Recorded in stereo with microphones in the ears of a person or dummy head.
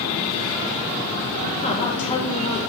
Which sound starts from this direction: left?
A woman speaking, at 1.6 s.